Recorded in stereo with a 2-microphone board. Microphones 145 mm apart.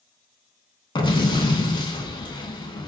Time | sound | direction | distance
0.9 | an explosion | 30° left (ahead or behind) | 0.7 m